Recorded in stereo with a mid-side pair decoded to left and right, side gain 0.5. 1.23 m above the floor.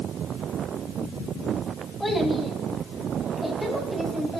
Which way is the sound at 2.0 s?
5° left.